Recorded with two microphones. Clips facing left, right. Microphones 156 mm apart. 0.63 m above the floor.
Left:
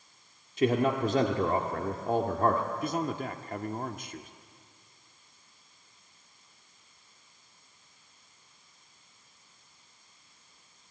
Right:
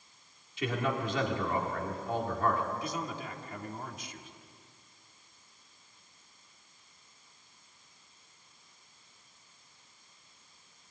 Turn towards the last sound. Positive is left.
turn(degrees=50)  # may be behind; listen again after turning